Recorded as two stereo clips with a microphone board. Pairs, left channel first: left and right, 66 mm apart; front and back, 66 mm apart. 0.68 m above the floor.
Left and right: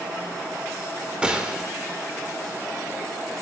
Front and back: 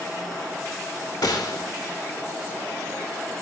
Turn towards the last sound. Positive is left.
turn(degrees=-15)